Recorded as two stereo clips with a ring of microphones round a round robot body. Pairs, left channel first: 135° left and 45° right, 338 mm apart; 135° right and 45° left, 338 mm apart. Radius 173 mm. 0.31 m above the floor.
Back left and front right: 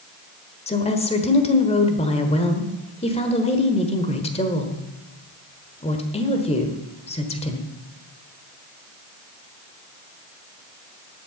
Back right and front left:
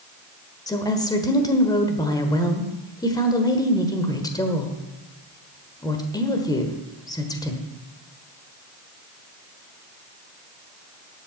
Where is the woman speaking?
165° left, 1.4 m.